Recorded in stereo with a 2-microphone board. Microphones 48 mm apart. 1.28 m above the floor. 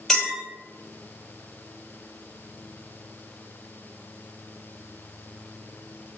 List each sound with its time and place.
0.1 s a clink: 5° left (ahead or behind), 1.3 m